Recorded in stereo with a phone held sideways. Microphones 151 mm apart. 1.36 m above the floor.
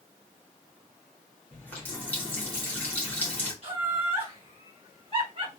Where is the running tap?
10° left (ahead or behind), 1.4 m.